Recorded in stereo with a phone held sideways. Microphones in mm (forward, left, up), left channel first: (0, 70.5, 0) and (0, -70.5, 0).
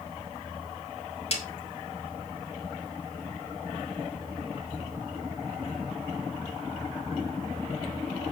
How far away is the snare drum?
About 3 m.